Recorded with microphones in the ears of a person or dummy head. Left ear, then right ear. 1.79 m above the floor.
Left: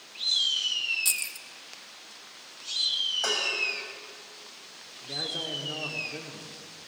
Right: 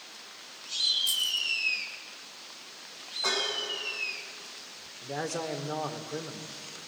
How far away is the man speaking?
About 2 m.